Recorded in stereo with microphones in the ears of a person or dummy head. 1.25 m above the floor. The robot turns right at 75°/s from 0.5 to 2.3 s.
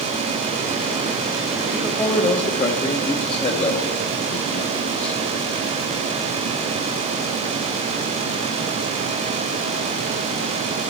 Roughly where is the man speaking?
Centre.